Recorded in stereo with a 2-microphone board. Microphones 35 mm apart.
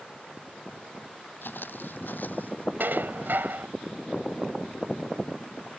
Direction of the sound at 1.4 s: 70° left (ahead or behind).